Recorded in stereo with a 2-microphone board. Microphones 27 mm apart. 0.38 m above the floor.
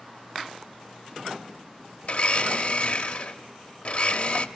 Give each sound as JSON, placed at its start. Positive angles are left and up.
{"t": 2.0, "sound": "a blender", "side_deg": 55, "distance_m": 0.8}